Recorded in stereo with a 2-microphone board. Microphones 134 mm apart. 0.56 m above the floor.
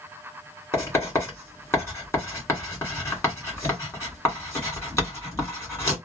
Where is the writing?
20° left (ahead or behind), 1.6 m.